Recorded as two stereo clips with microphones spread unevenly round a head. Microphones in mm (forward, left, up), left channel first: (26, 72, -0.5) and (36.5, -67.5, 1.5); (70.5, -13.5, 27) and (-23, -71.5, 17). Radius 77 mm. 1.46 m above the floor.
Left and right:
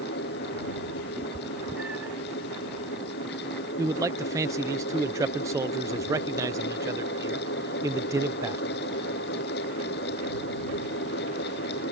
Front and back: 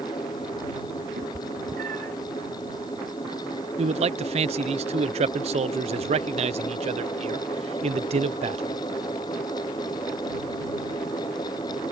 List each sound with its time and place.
0.0 s a fan: 95° left
1.2 s a cat meowing: 165° right
3.8 s a man speaking: 155° right